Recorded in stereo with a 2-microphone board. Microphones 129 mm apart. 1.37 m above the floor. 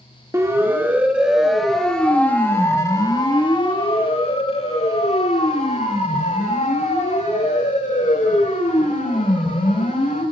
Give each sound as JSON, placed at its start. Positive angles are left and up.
{"t": 0.3, "sound": "a siren", "side_deg": -20, "distance_m": 2.5}